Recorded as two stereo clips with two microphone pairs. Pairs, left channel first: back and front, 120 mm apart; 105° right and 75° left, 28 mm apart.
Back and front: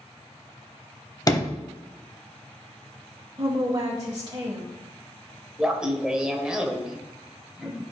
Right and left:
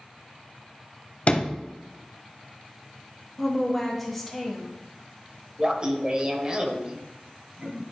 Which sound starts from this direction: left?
Laughter, at 5.6 s.